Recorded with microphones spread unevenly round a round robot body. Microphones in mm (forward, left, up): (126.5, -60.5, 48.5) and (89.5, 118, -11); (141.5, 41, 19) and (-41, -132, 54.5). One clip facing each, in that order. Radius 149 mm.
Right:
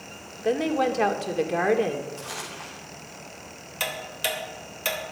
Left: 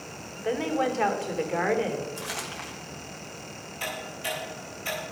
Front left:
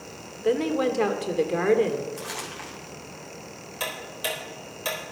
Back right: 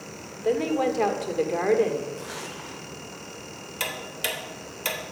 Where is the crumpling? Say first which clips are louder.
Left 1 dB, even; 105° left, 3.5 m.